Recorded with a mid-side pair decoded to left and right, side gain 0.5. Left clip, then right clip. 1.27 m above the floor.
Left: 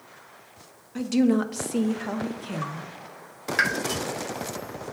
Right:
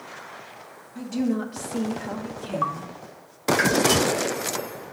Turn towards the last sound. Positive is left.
turn(degrees=25)